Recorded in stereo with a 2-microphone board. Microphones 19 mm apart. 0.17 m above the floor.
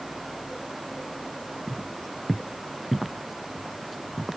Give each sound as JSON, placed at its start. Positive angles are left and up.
{"t": 1.7, "sound": "footsteps", "side_deg": 5}